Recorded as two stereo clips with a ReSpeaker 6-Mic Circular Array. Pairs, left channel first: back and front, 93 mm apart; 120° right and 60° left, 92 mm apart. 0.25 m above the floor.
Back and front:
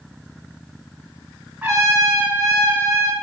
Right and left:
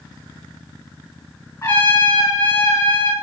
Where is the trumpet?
70° right, 2.5 m.